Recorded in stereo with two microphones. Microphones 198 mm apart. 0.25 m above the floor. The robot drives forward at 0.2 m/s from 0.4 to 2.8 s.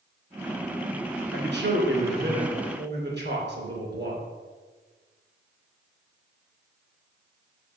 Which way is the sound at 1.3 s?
65° right (ahead or behind).